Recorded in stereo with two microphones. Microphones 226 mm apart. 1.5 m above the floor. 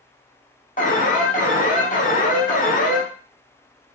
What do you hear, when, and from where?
0.8 s an alarm: 35° left (ahead or behind), 0.6 m